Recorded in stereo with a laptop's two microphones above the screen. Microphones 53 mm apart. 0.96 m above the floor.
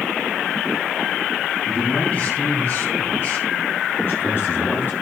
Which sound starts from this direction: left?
A man speaking, at 1.7 s.